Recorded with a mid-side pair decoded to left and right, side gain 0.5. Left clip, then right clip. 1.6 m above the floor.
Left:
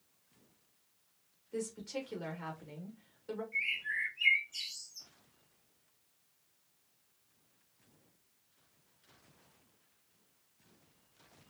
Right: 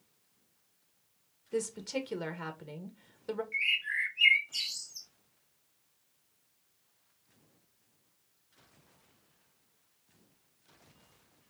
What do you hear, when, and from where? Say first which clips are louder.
1.5 s a woman speaking: right 5 dB; 65° right, 1.6 m
3.5 s a bird: right 4 dB; 60° right, 1.4 m